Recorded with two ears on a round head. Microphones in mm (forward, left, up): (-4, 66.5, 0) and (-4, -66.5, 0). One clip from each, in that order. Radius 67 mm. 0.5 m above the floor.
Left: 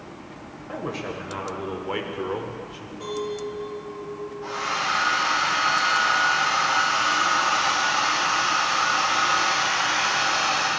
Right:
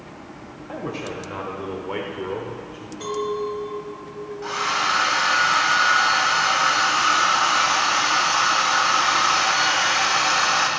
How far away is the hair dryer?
About 3 m.